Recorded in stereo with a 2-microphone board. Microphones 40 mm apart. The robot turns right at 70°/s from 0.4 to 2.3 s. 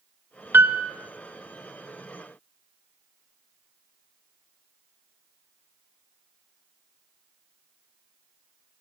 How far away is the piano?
About 0.6 m.